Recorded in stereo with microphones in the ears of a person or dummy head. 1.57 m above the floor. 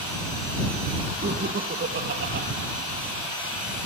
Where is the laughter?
40° right (ahead or behind); by 2.5 s 55° right (ahead or behind).